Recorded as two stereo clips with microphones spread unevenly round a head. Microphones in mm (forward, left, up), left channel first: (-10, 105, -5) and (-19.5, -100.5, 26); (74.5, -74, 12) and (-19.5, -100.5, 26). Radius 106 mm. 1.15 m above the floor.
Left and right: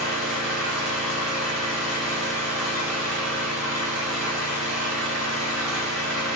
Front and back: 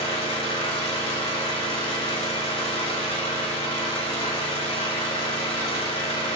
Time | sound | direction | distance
0.0 | an engine running | 5° right | 1.2 m